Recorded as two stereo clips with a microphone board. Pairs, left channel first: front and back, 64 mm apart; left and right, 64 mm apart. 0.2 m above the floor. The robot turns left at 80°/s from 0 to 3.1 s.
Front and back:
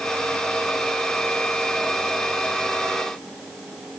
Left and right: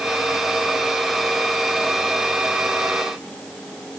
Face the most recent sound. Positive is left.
No sound to turn to.